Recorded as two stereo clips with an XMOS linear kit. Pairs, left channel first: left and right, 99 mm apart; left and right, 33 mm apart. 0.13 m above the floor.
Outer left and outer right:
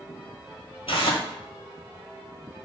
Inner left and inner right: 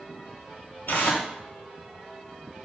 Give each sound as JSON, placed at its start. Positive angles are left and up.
{"t": 0.9, "sound": "tearing paper", "side_deg": 70, "distance_m": 0.6}